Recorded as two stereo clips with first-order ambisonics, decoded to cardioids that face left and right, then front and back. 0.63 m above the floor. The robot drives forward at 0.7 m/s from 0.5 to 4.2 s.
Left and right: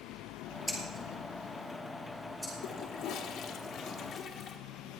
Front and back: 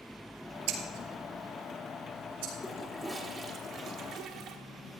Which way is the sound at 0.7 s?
Straight behind.